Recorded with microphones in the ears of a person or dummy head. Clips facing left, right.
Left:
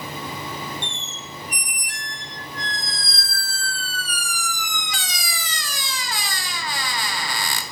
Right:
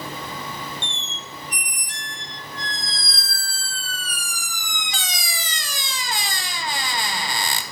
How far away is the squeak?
About 0.5 m.